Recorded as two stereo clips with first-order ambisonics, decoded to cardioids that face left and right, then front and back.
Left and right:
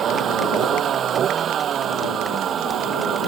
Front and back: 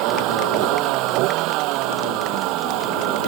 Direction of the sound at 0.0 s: 150° right.